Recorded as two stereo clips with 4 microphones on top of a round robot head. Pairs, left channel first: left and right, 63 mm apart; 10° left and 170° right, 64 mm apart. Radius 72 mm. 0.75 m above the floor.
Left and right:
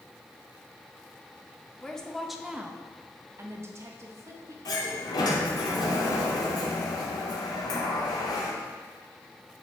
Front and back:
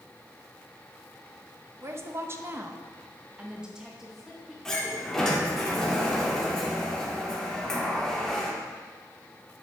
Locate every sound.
1.8 s a woman speaking: 160° left, 0.9 m; by 4.5 s 80° right, 1.2 m
4.7 s a sliding door: 90° left, 1.4 m